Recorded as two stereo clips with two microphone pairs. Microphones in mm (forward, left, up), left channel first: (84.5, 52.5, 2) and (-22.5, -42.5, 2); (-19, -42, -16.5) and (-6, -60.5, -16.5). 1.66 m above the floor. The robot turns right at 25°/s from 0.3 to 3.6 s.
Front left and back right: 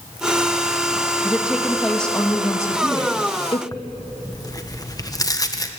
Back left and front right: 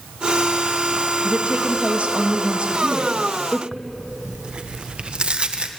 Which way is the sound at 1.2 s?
60° right.